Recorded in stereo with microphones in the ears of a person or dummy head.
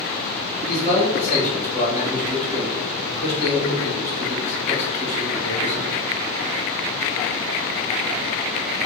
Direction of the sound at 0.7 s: 30° right (ahead or behind).